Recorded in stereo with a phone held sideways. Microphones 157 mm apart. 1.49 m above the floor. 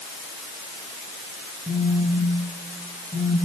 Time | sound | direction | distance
1.7 | a phone buzzing | 25° right (ahead or behind) | 3.5 m